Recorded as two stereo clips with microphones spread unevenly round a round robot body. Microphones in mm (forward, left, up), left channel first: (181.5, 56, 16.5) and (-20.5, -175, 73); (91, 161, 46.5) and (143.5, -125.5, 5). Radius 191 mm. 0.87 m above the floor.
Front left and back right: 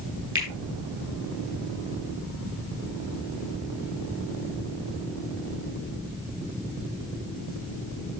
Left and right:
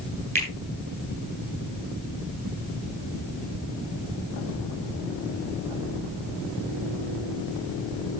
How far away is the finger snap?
About 9 m.